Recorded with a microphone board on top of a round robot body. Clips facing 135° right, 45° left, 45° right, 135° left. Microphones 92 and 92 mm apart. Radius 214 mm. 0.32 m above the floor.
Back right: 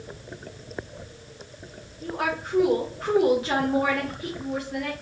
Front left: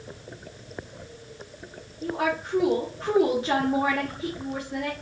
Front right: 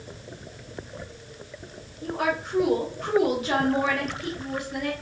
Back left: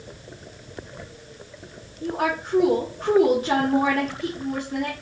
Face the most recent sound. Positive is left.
turn(degrees=95)